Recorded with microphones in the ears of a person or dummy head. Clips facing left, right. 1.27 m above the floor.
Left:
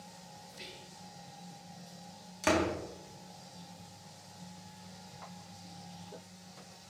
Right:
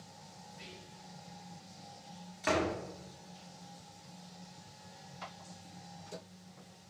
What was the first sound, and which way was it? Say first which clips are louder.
Whispering: right 1 dB; 60° left (ahead or behind).